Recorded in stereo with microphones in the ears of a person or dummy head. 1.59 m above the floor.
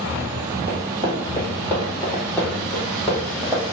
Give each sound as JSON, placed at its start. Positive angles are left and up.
{"t": 0.7, "sound": "running footsteps", "side_deg": 35, "distance_m": 1.9}